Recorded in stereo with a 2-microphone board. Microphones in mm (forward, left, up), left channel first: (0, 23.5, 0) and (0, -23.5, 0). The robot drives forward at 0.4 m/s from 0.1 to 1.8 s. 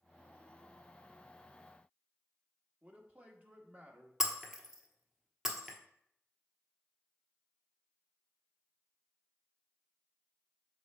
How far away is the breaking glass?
About 1.0 m.